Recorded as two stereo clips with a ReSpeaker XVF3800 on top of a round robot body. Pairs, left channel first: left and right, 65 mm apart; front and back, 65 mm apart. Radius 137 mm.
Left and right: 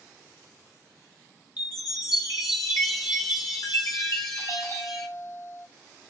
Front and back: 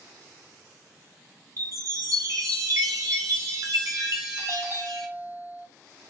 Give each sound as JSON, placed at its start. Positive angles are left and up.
{"t": 1.6, "sound": "a chime", "azimuth_deg": 130, "distance_m": 0.6}
{"t": 4.4, "sound": "a doorbell", "azimuth_deg": 130, "distance_m": 2.5}